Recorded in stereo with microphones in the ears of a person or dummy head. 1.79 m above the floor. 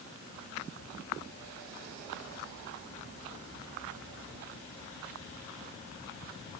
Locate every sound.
Only background noise.